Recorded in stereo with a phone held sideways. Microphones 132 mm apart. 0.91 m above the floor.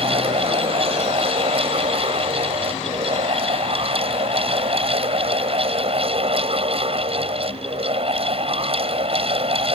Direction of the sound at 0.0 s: 45° right (ahead or behind).